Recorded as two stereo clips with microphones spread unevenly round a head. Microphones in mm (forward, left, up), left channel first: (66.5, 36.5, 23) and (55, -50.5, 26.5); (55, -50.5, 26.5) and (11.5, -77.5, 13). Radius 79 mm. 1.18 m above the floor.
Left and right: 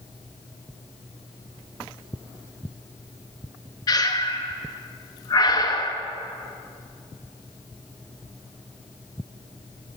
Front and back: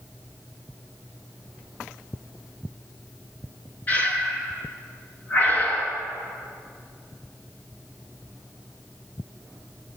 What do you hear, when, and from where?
3.9 s breathing: 50° left, 0.6 m